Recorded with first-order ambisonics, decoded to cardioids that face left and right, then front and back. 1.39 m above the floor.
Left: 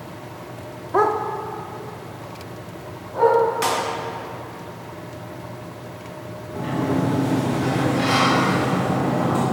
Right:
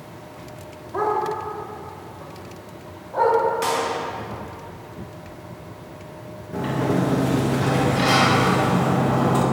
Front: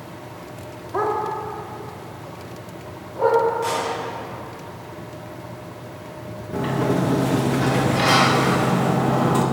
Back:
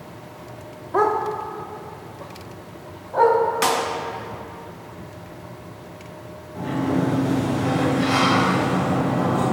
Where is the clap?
165° left, 2.0 m.